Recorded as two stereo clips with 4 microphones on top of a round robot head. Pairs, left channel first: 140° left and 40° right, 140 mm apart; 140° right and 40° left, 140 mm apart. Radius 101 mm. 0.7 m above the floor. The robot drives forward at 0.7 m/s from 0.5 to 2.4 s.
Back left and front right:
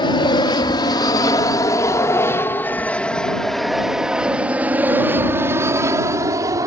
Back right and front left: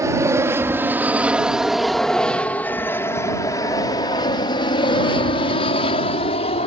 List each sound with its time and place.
0.0 s an aircraft: 100° left; by 6.7 s 105° right